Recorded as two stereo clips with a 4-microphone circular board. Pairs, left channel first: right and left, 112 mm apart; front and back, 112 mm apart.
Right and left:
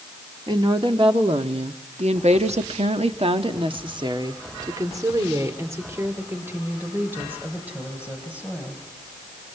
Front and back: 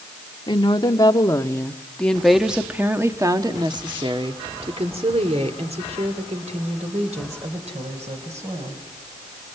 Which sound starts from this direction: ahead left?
A woman speaking, at 0.5 s.